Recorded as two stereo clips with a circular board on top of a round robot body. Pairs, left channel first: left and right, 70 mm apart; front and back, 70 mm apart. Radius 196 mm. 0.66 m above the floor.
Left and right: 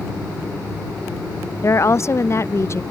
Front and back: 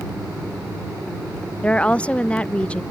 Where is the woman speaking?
70° left.